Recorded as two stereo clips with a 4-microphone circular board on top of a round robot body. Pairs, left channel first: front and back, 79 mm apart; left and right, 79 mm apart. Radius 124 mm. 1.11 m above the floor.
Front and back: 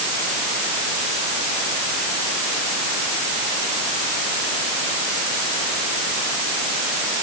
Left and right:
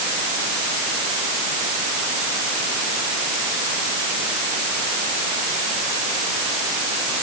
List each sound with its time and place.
Only background noise.